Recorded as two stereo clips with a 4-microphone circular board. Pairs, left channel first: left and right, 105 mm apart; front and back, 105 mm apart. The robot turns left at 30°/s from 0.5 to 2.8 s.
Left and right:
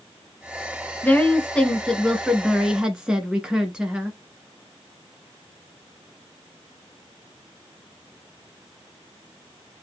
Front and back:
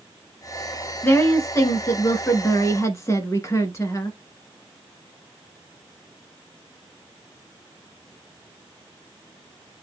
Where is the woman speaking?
40° left, 1.6 m; by 4.2 s 15° right, 1.6 m.